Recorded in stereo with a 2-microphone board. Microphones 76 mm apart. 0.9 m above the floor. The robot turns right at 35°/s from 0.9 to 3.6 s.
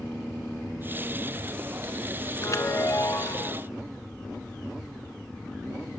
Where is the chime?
85° left, 0.9 m; by 3.5 s 125° left, 0.9 m.